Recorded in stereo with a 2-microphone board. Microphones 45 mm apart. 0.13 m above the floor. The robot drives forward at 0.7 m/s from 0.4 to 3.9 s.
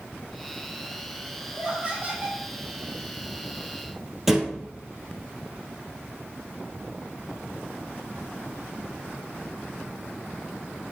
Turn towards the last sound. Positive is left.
turn(degrees=-5)  # may be behind; listen again after turning